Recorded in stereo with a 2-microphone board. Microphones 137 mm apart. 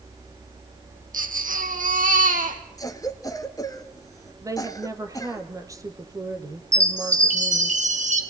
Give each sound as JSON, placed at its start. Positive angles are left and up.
{"t": 1.1, "sound": "a baby crying", "side_deg": -70, "distance_m": 2.5}
{"t": 2.8, "sound": "a cough", "side_deg": 25, "distance_m": 1.8}
{"t": 4.4, "sound": "a woman speaking", "side_deg": -25, "distance_m": 2.5}
{"t": 6.7, "sound": "a chime", "side_deg": -55, "distance_m": 2.5}